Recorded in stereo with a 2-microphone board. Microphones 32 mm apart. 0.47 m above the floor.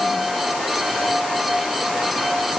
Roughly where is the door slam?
No door slam in this recording.